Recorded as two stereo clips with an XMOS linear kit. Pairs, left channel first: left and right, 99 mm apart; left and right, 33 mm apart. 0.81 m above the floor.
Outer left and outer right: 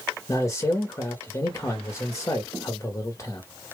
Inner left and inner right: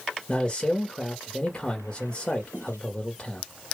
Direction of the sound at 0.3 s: 35° left (ahead or behind).